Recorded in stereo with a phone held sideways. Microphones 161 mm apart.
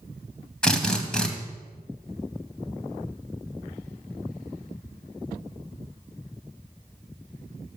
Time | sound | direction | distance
0.6 | a drill | 5° left (ahead or behind) | 2.5 m